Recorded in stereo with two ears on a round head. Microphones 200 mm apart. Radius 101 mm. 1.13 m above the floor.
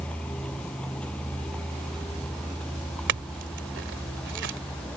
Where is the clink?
50° right (ahead or behind).